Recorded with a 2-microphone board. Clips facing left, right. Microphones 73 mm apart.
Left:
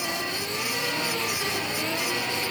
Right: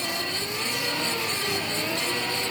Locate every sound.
Only background noise.